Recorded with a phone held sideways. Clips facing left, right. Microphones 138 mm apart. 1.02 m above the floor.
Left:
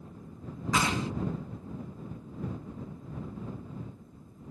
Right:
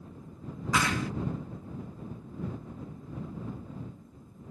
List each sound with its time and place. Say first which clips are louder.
0.7 s a clap: even; 25° left (ahead or behind)